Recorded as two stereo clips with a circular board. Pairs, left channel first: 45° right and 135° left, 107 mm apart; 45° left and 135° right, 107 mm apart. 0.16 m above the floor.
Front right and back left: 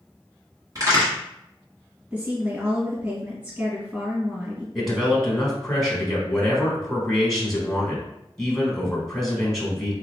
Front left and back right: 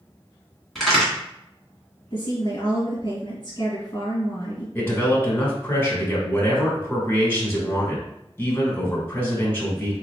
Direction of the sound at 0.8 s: 130° left.